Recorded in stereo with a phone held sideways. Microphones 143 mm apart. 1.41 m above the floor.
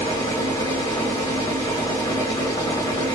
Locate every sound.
0.0 s a machine running: 30° left (ahead or behind), 1.4 m